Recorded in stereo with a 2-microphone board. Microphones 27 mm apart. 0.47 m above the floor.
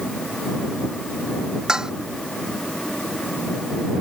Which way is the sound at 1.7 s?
25° right (ahead or behind).